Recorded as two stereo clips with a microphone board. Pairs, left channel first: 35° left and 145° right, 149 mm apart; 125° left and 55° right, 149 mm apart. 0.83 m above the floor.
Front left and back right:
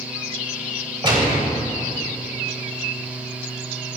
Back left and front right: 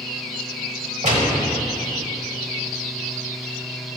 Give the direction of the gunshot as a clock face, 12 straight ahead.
3 o'clock.